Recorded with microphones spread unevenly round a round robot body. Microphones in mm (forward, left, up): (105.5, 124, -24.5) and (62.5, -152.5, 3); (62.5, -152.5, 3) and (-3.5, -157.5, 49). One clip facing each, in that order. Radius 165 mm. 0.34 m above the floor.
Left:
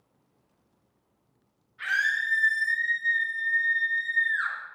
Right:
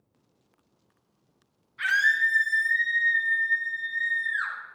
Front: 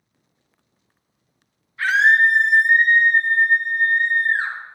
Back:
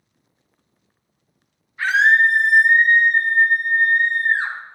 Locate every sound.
1.8 s a scream: 105° right, 4 m; by 4.5 s 175° right, 3.5 m